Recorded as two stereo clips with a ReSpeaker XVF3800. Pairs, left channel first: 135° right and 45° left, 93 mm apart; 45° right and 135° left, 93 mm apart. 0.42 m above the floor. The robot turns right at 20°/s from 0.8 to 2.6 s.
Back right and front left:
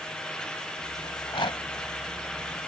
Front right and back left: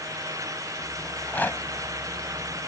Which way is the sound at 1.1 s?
120° right.